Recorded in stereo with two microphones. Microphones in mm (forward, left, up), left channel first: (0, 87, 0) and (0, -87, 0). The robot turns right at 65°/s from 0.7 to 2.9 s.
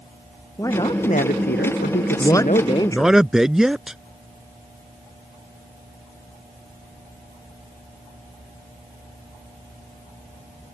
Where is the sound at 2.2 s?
140° left; by 4.0 s 175° right.